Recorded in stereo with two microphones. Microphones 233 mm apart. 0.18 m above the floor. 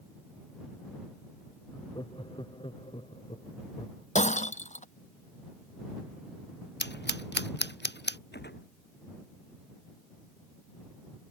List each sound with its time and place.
1.7 s laughter: 20° left (ahead or behind); by 4.0 s 30° left (ahead or behind)
4.2 s breaking glass: 30° left (ahead or behind)
6.8 s scissors: 50° left (ahead or behind)
8.3 s a gunshot: 50° left (ahead or behind)